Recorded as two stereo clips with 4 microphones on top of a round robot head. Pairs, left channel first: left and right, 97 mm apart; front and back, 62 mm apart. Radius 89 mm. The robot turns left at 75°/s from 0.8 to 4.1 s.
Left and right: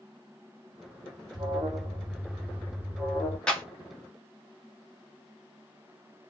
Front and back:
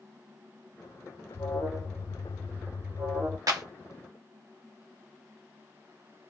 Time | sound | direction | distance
1.3 | an alarm | 50° right | 2 m
3.5 | a clap | 170° left | 1.1 m